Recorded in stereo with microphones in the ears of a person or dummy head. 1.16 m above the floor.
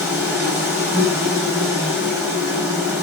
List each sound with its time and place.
0.0 s an insect: 5° right (ahead or behind), 1.1 m